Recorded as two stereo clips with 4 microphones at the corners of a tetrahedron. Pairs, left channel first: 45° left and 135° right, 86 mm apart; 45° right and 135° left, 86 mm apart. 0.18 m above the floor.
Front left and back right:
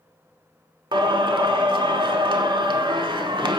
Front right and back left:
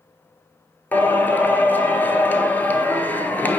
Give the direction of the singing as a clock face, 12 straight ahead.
4 o'clock.